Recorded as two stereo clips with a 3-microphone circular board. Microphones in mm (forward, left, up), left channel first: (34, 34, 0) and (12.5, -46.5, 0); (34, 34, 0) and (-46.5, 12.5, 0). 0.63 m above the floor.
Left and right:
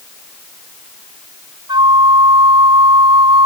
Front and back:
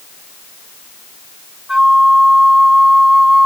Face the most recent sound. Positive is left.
turn(degrees=-80)